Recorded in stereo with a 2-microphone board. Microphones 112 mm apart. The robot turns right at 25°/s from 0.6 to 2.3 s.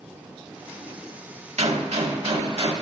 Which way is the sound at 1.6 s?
75° right (ahead or behind).